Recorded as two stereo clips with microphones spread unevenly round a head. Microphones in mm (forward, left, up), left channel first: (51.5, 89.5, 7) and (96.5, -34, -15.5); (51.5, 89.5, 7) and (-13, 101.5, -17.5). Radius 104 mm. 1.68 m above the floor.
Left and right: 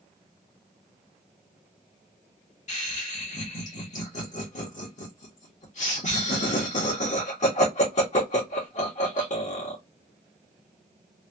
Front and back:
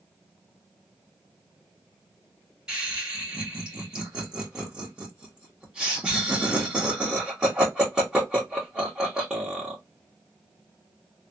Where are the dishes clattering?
No dishes clattering in this recording.